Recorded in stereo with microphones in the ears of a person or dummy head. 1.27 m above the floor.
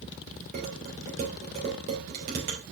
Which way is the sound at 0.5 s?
40° right (ahead or behind).